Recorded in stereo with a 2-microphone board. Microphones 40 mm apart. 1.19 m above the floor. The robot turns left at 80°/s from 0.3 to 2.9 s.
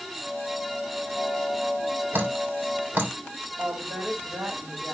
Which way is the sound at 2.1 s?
55° right (ahead or behind).